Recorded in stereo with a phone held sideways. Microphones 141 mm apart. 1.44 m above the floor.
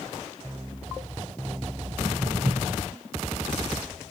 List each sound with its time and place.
1.8 s footsteps: 25° right (ahead or behind), 2.5 m